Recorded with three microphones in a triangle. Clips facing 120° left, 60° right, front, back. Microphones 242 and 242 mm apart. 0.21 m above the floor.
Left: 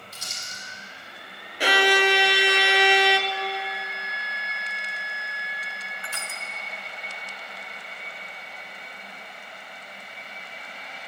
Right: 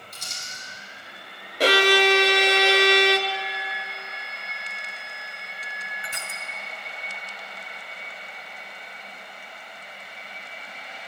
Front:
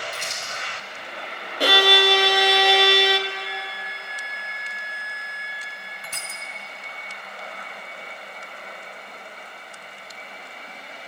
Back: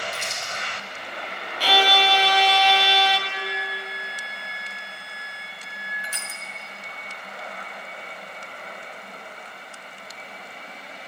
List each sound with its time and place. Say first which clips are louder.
0.1 s crumpling: even, back 1 dB; 40° left, 6 m
1.6 s a violin: right 3 dB, front 4 dB; 10° right, 0.9 m
3.3 s a flute: left 3 dB, back 2 dB; 35° left, 3 m
6.0 s crushing: left 1 dB, even; 10° left, 1.7 m